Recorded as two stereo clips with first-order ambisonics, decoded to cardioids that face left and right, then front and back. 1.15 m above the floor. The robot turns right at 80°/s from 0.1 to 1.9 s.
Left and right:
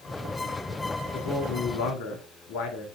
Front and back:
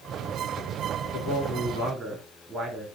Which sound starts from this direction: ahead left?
A man speaking, at 1.1 s.